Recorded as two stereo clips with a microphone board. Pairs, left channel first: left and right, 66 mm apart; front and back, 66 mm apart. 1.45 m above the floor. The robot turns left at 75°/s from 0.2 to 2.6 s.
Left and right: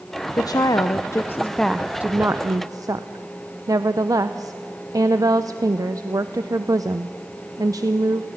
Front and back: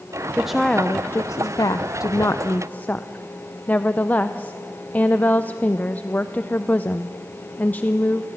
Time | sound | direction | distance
0.4 | a woman speaking | 105° left | 0.6 m